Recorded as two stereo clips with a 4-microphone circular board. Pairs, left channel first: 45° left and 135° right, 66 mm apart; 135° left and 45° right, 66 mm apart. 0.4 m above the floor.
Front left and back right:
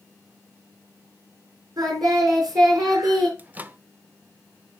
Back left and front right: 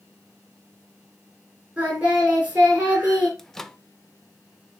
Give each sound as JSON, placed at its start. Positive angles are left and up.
{"t": 1.8, "sound": "singing", "azimuth_deg": -115, "distance_m": 7.0}
{"t": 3.4, "sound": "a microwave", "azimuth_deg": -150, "distance_m": 0.6}